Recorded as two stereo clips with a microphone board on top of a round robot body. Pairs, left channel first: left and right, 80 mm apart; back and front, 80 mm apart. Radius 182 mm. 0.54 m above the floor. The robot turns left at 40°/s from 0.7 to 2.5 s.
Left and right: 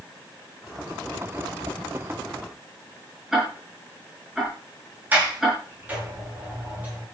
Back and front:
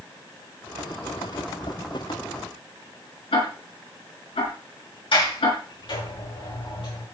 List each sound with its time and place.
3.3 s ticking: 175° right, 6 m
5.1 s a sliding door: 160° right, 7.5 m